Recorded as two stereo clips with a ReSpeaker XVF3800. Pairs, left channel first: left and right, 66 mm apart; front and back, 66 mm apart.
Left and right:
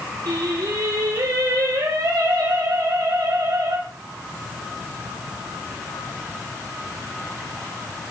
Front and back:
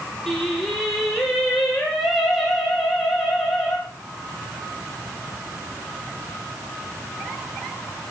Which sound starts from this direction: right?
Singing, at 0.3 s.